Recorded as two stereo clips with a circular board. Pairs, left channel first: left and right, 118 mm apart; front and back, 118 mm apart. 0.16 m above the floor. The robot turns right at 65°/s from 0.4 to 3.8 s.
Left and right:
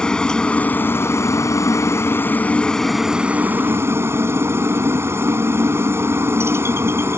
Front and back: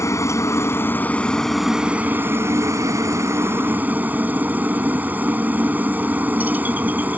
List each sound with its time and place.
0.0 s a helicopter: 15° left; by 7.2 s 125° right